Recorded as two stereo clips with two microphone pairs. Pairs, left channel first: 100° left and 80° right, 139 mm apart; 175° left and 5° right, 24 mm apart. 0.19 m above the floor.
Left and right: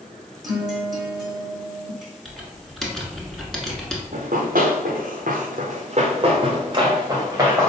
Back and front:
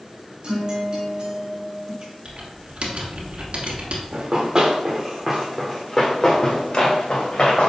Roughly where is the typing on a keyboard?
Ahead.